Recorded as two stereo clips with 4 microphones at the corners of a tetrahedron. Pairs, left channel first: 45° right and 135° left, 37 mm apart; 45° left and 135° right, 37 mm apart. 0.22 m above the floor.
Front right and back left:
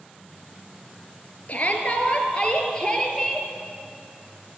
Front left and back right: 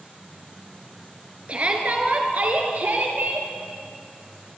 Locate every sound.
1.5 s a shout: 90° right, 3 m; by 3.5 s 120° right, 3.5 m